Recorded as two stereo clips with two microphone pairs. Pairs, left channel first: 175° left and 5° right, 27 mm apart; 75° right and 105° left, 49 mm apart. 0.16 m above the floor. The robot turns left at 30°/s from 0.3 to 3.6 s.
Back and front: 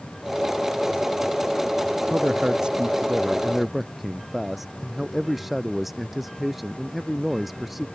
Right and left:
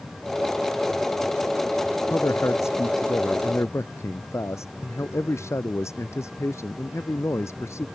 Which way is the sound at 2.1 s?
45° right.